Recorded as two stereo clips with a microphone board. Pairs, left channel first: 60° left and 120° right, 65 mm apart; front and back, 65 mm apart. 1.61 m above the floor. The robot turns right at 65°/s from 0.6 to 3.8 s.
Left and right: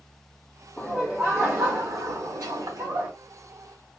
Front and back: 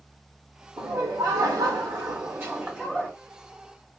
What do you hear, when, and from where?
0.8 s laughter: 135° left, 0.8 m; by 3.1 s 75° right, 0.8 m